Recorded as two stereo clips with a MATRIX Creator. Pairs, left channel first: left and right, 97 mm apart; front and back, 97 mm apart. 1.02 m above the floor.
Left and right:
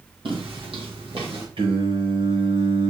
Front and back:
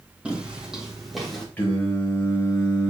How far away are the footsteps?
About 2.5 m.